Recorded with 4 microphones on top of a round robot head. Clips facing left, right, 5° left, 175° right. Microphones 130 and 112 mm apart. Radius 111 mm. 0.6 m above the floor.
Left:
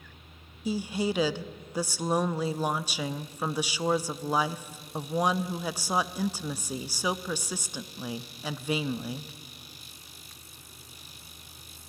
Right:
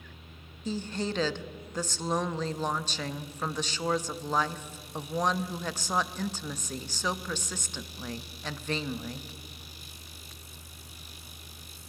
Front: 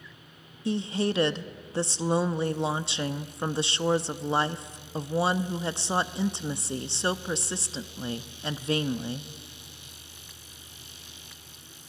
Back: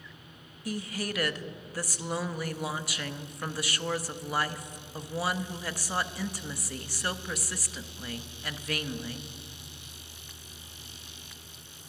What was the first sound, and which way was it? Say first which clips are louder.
A woman speaking: left 4 dB, front 7 dB; 25° left.